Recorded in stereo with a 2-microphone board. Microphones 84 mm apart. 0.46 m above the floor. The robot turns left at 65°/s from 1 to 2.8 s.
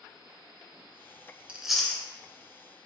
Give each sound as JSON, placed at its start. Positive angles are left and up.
{"t": 1.5, "sound": "chewing", "side_deg": -15, "distance_m": 0.5}